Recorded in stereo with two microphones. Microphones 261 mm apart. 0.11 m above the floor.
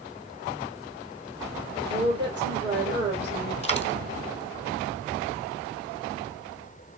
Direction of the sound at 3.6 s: 25° left (ahead or behind).